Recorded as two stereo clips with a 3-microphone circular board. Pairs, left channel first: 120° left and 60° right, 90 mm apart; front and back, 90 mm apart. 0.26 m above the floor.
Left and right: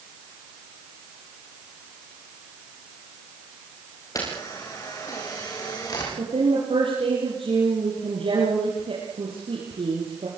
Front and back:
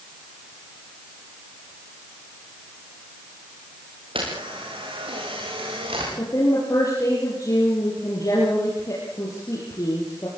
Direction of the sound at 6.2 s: 50° right.